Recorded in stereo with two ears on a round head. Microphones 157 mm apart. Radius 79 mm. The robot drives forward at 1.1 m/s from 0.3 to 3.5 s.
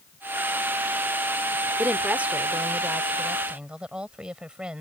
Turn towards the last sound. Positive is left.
turn(degrees=-5)  # may be behind; listen again after turning